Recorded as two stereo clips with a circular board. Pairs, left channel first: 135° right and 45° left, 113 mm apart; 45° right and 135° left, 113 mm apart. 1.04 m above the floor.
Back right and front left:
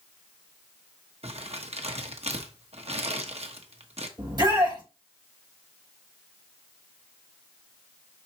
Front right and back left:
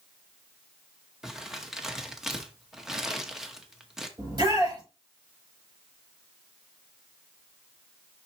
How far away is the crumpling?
About 1.0 m.